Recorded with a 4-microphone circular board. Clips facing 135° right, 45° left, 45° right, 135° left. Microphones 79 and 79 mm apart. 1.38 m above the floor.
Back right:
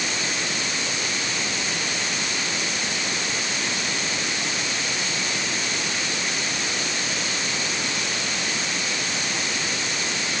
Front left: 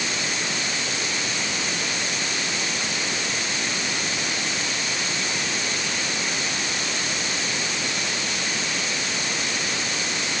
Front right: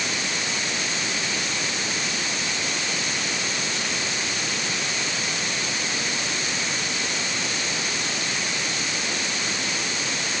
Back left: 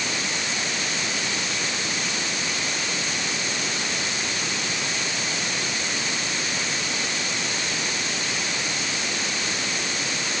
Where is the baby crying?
No baby crying in this recording.